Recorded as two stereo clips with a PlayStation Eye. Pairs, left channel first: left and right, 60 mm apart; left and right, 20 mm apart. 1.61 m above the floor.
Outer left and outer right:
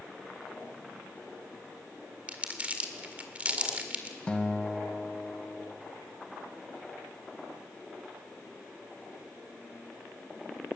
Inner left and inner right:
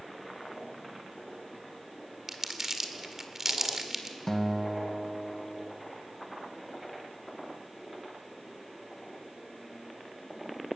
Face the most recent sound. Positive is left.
turn(degrees=15)  # may be behind; listen again after turning